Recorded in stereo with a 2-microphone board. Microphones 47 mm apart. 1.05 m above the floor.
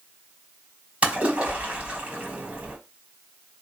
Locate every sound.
1.0 s a splash: 25° right (ahead or behind), 1.5 m